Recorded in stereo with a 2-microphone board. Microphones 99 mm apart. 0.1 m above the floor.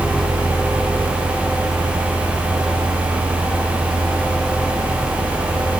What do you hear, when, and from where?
Only background noise.